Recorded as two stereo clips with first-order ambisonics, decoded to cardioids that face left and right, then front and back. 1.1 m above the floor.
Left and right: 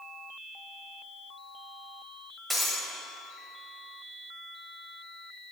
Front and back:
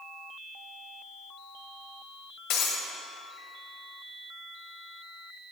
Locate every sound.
2.5 s breaking glass: 10° right, 1.7 m